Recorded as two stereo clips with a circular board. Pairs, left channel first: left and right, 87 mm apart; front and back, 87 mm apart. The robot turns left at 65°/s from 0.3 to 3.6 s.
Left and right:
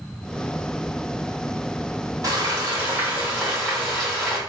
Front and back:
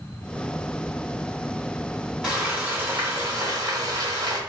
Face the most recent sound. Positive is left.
turn(degrees=180)